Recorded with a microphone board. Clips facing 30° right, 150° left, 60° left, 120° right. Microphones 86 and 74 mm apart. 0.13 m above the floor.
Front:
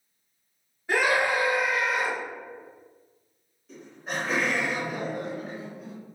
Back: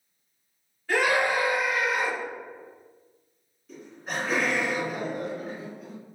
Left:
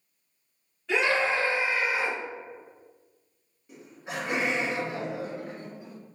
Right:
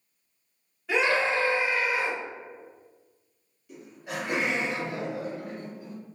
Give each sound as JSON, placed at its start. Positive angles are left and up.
{"t": 0.9, "sound": "a scream", "azimuth_deg": -60, "distance_m": 1.3}
{"t": 3.7, "sound": "laughter", "azimuth_deg": 55, "distance_m": 2.0}